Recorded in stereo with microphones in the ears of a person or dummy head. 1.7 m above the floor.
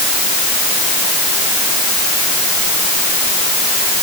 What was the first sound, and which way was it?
Only background noise.